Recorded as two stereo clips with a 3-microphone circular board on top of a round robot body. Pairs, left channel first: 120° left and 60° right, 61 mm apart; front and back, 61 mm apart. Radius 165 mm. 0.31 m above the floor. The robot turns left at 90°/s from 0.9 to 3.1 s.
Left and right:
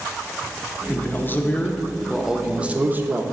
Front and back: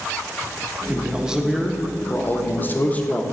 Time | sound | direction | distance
0.9 | a man speaking | 145° left | 1.0 m